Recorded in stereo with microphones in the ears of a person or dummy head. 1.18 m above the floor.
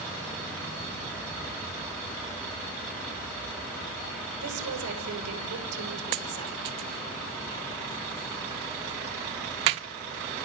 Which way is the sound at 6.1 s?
30° right (ahead or behind).